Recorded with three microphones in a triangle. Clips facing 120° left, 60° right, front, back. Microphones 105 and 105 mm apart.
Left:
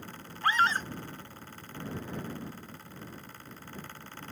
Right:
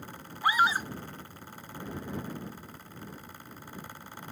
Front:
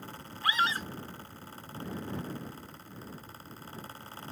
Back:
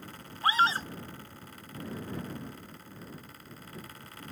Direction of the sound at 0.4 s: 140° right.